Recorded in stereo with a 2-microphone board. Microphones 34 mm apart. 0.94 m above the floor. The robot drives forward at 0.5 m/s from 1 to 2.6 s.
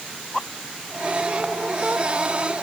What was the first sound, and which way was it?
Only background noise.